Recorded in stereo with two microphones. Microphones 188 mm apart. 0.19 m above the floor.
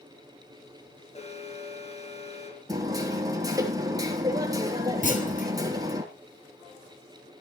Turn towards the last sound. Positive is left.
turn(degrees=40)  # may be behind; listen again after turning